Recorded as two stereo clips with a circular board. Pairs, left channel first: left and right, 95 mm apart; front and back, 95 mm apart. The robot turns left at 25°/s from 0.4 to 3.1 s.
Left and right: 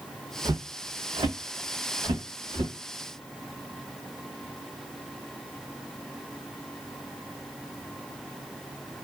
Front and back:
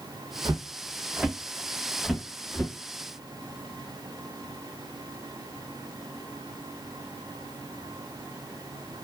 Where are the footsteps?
130° right, 0.5 m; by 2.7 s 95° right, 1.4 m.